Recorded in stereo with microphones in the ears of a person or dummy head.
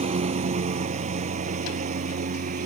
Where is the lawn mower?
35° right (ahead or behind); by 2.7 s 50° right (ahead or behind).